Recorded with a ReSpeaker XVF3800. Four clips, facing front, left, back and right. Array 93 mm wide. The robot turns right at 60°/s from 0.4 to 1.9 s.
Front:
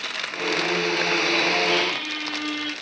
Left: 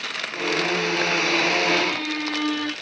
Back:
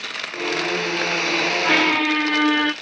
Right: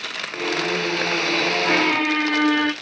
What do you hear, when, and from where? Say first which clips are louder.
1.6 s a squeak: right 4 dB, back 6 dB; 155° right, 0.6 m; by 2.7 s 140° right, 0.6 m